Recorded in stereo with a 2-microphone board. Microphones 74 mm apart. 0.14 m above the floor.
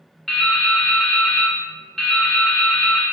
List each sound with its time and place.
0.3 s dripping: 5° left (ahead or behind), 1.3 m